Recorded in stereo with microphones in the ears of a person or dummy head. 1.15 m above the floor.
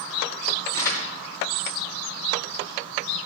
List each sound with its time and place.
0.7 s crumpling: 15° left (ahead or behind), 2.5 m